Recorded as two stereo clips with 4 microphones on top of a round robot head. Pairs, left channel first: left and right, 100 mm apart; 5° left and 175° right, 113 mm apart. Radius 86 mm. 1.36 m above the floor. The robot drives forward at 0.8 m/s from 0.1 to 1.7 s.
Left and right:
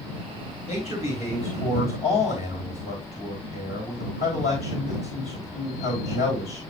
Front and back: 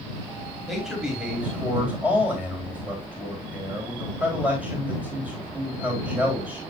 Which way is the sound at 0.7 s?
90° left.